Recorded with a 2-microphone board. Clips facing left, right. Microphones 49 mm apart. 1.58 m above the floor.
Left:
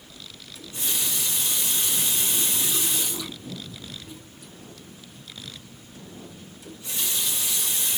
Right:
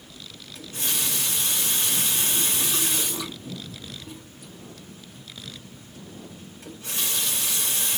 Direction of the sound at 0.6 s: 50° right (ahead or behind).